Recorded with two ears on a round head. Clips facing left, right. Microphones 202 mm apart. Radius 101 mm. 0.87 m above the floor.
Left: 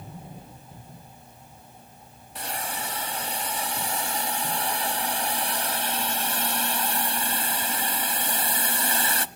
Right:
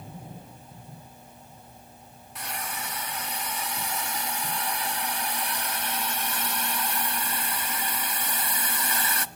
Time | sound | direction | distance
2.4 | a hiss | 25° left (ahead or behind) | 1.2 m